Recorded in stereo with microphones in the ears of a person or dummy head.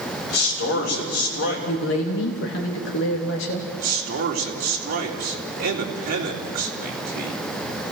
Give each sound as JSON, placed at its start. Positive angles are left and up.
{"t": 0.3, "sound": "a man speaking", "side_deg": 60, "distance_m": 6.0}
{"t": 1.7, "sound": "a man speaking", "side_deg": 65, "distance_m": 2.5}
{"t": 3.8, "sound": "a man speaking", "side_deg": -55, "distance_m": 3.5}